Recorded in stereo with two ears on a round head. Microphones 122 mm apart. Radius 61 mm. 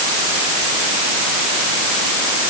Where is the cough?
I don't hear a cough.